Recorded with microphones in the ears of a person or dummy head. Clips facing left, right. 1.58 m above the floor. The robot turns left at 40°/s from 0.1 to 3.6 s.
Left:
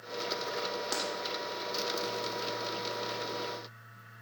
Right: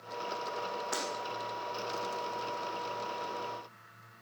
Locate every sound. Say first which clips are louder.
0.9 s breaking glass: left 1 dB; 65° left (ahead or behind), 4.5 m; by 1.0 s 70° left (ahead or behind), 4.5 m